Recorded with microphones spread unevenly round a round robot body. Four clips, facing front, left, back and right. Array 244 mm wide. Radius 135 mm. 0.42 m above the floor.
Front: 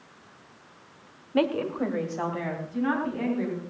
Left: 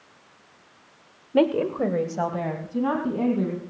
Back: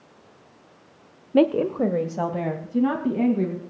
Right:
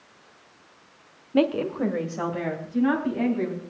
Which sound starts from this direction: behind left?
A woman speaking, at 1.3 s.